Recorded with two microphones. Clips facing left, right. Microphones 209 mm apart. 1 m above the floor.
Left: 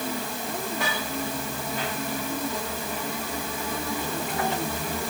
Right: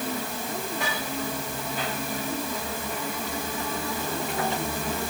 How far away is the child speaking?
No child speaking in this recording.